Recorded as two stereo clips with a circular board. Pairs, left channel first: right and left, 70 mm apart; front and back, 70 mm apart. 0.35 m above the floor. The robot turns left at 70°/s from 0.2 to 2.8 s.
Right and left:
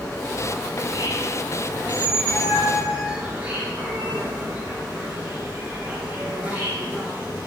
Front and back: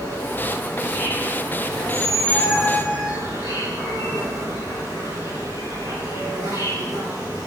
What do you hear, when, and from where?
0.0 s an insect: 20° right, 6 m; by 7.5 s 155° left, 6 m
1.8 s a squeak: 5° right, 3.5 m; by 3.2 s 75° right, 3.5 m